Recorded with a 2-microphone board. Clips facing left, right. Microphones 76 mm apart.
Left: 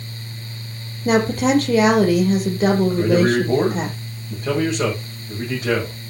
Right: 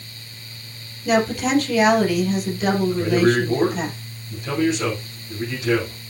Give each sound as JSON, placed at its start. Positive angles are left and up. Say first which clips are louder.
{"t": 1.1, "sound": "a woman speaking", "louder": "left 2 dB", "side_deg": 40, "distance_m": 4.5}
{"t": 2.9, "sound": "a man speaking", "louder": "left 1 dB", "side_deg": 40, "distance_m": 7.5}